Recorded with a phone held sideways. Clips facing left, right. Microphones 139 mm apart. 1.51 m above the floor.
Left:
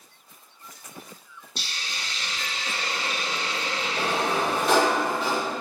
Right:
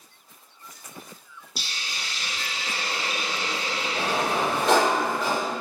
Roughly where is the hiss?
Centre.